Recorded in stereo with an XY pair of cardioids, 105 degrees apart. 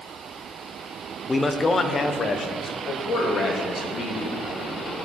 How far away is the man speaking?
About 0.7 m.